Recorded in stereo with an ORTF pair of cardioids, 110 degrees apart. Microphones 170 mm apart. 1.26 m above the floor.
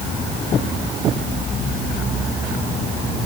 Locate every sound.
Only background noise.